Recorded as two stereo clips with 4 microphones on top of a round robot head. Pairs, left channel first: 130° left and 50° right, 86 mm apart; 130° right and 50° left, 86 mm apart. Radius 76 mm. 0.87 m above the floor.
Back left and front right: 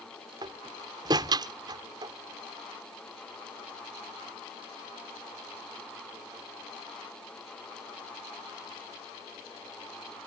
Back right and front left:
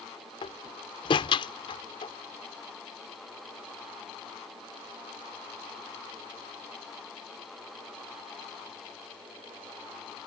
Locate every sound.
0.4 s a door slam: 95° right